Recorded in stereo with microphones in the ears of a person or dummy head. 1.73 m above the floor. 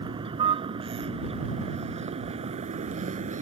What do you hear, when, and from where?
0.0 s a vehicle: 25° right (ahead or behind); by 3.4 s 35° right (ahead or behind)